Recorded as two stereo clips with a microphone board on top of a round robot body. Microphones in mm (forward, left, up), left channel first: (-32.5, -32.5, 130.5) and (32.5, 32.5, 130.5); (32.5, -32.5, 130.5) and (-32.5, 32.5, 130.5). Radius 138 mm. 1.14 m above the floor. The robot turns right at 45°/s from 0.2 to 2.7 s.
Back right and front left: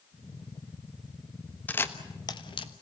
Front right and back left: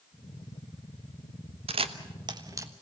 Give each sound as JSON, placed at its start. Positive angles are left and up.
{"t": 1.7, "sound": "a camera shutter", "azimuth_deg": 150, "distance_m": 1.2}